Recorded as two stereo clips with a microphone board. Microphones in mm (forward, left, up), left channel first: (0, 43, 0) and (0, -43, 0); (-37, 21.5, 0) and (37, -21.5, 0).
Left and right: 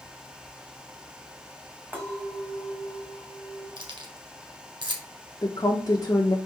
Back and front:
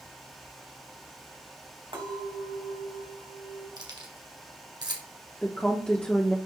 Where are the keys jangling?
65° right, 1.9 m.